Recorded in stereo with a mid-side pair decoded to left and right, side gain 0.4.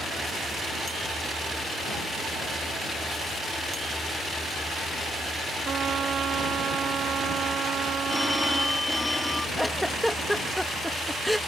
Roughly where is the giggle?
Ahead.